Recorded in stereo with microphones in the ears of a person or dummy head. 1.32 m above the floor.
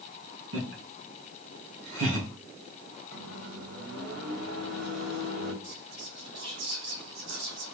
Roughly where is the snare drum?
I don't hear a snare drum.